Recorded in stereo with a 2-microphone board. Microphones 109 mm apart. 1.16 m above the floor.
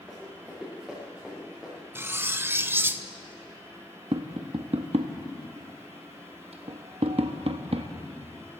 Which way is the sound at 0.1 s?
Centre (ahead or behind).